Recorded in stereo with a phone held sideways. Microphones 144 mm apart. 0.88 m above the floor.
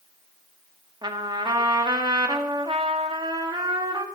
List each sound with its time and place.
1.0 s a trumpet: 30° right (ahead or behind), 1.6 m